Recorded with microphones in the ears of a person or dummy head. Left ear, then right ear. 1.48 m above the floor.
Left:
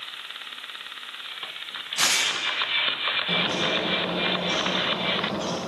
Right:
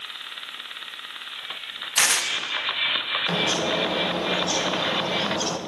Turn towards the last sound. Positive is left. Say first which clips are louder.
# right 1 dB
turn(degrees=-75)  # may be behind; listen again after turning